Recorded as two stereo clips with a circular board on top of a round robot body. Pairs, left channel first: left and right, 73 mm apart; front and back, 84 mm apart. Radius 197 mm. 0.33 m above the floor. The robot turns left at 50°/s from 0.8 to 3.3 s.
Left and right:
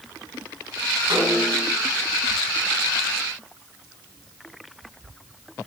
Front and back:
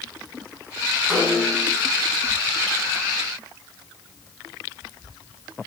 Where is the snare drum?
105° right, 5 m; by 1.7 s 135° right, 5 m.